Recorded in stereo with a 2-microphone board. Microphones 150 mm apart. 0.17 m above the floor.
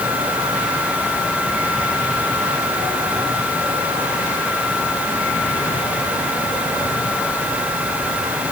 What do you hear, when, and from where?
Only background noise.